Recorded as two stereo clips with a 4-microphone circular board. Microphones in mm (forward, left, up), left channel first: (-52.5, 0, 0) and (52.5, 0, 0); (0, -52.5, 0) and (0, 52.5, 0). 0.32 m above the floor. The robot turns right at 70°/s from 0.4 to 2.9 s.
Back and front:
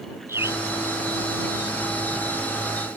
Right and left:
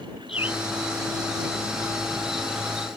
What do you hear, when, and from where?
0.3 s a bird: 65° right; by 0.6 s 50° right